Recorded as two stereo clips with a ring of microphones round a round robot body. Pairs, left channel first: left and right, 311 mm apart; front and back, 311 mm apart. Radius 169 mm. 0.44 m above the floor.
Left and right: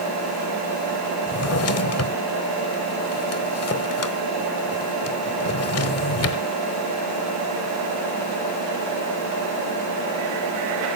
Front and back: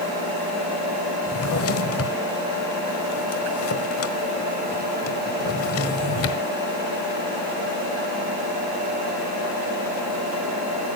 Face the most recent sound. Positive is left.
turn(degrees=50)